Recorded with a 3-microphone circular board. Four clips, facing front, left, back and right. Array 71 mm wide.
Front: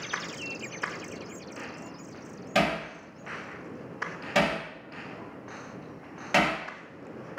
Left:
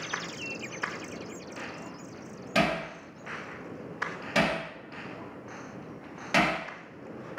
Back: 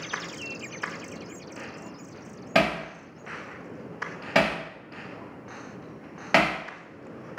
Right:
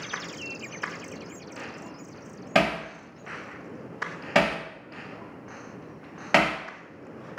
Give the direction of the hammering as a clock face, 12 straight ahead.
4 o'clock.